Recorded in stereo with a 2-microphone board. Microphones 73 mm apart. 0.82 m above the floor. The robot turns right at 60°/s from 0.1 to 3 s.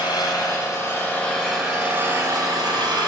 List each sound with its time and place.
0.0 s an engine running: 95° left, 3.5 m; by 3.1 s 90° right, 3.5 m